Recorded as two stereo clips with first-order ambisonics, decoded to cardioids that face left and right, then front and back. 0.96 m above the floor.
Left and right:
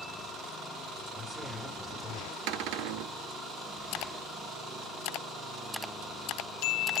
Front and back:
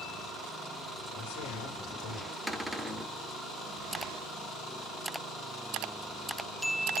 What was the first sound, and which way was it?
A man speaking, 10° right.